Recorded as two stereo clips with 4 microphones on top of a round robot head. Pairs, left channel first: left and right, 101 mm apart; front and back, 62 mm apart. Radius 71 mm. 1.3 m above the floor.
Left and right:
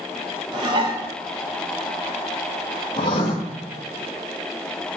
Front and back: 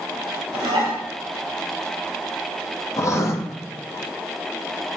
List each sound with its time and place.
0.5 s dishes clattering: 135° right, 0.8 m
3.0 s writing: 40° left, 0.7 m